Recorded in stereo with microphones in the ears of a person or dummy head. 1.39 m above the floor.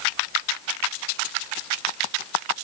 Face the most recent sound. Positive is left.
No sound to turn to.